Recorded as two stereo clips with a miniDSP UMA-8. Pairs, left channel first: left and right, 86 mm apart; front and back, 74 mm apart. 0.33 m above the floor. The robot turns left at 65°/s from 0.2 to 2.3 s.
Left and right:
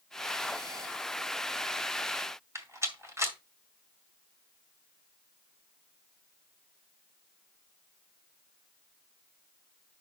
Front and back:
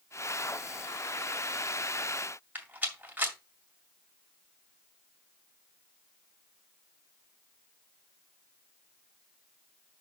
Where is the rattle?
125° right, 1.9 m.